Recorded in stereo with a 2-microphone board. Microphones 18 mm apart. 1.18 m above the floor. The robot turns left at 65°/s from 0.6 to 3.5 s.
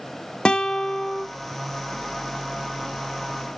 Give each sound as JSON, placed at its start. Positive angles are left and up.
{"t": 0.5, "sound": "a guitar", "azimuth_deg": 65, "distance_m": 0.8}